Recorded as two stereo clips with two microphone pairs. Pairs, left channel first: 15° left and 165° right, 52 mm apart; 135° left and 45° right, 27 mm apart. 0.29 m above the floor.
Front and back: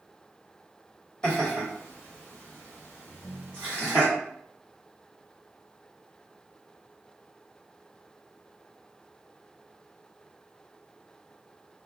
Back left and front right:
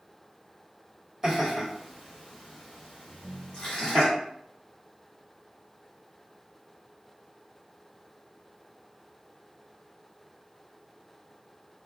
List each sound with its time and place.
1.2 s laughter: 10° right, 1.2 m; by 4.0 s 85° left, 1.7 m
3.0 s a ringtone: 50° left, 1.2 m